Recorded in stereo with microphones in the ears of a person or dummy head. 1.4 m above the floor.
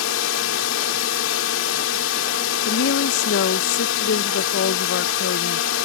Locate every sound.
0.0 s a drone: 85° left
2.6 s a woman speaking: 65° left (ahead or behind)